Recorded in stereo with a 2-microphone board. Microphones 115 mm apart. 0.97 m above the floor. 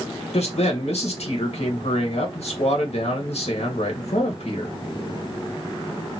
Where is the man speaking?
70° left (ahead or behind), 1.3 m.